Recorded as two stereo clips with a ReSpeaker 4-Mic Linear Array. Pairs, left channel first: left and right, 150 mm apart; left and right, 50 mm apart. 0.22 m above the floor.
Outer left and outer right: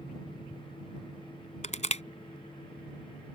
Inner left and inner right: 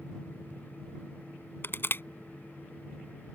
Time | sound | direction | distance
1.6 | crushing | 50° left (ahead or behind) | ?